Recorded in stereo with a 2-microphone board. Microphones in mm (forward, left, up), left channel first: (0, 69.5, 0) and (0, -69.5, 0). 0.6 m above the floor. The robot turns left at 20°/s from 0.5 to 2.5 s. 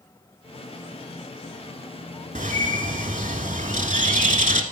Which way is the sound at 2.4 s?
70° right (ahead or behind).